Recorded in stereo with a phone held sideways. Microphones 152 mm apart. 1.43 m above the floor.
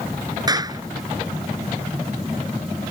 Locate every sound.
0.5 s a clap: 25° right (ahead or behind)